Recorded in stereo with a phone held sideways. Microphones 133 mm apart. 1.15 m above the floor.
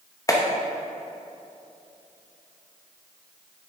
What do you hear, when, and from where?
0.3 s a clap: 25° left (ahead or behind), 1.0 m